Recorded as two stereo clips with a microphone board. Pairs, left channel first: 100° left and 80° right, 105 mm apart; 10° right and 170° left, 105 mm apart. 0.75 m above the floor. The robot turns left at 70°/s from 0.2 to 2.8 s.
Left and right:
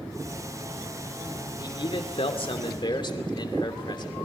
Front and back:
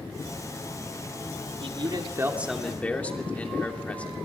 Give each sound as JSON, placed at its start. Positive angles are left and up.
{"t": 1.6, "sound": "a man speaking", "azimuth_deg": 150, "distance_m": 2.5}